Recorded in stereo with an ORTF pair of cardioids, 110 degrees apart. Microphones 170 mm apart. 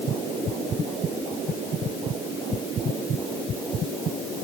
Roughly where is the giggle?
I don't hear a giggle.